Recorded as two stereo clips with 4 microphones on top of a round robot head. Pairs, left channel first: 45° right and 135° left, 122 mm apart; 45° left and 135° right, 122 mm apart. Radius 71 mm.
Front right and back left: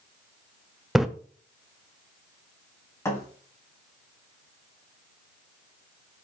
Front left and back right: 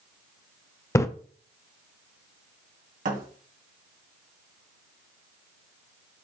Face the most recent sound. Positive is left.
turn(degrees=-115)